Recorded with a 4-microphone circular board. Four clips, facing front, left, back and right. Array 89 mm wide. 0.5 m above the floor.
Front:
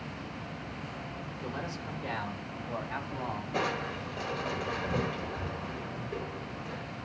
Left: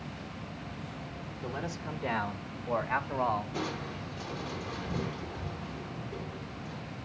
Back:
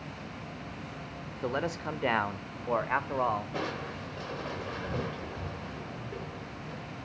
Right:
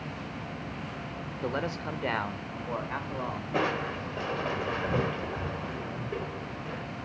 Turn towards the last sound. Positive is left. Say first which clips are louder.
# right 7 dB, front 3 dB
turn(degrees=-80)